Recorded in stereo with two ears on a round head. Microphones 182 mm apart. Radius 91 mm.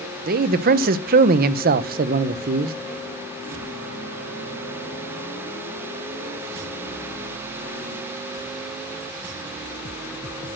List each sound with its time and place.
0.3 s a man speaking: 45° right (ahead or behind), 0.7 m